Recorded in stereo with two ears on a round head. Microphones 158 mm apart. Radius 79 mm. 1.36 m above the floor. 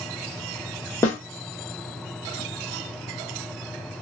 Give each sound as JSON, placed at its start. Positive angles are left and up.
{"t": 1.0, "sound": "a snare drum", "side_deg": 15, "distance_m": 1.1}